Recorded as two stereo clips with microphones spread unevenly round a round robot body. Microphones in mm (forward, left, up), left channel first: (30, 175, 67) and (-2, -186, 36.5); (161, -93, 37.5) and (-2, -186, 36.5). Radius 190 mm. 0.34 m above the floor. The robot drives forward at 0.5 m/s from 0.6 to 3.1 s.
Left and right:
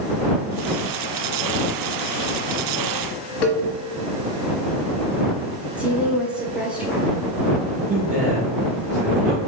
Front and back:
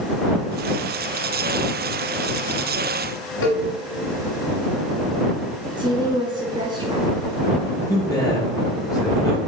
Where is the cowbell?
60° left, 1.2 m.